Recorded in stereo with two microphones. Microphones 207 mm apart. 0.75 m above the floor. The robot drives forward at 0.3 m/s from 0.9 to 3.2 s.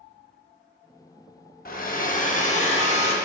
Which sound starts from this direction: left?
A hair dryer, at 1.6 s.